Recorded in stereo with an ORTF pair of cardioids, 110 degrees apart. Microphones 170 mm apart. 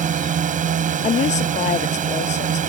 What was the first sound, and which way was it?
A drone, 50° right.